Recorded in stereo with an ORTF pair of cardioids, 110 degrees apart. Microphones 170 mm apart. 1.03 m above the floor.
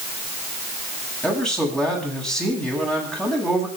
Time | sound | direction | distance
1.2 | a man speaking | 5° left | 9 m